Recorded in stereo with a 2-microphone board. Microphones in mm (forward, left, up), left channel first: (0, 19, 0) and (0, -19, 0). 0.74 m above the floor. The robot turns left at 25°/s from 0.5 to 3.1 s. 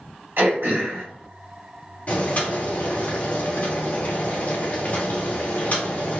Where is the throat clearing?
70° right (ahead or behind), 1.6 m; by 1.0 s 80° right, 1.6 m.